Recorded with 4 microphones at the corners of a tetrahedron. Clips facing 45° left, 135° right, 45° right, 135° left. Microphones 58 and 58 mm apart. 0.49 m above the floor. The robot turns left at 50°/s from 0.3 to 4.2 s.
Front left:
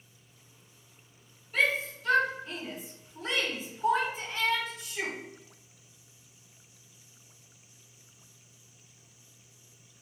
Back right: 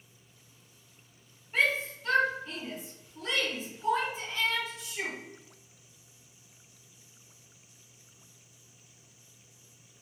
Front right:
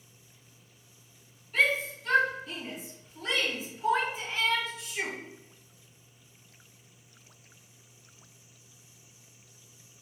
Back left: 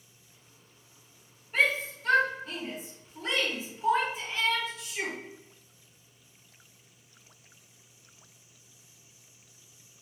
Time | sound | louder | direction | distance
1.5 | a shout | even, even | 175° left | 1.8 m